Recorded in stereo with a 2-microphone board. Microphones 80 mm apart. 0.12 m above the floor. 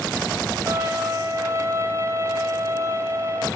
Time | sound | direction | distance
0.7 | a violin | 35° right (ahead or behind) | 3.5 m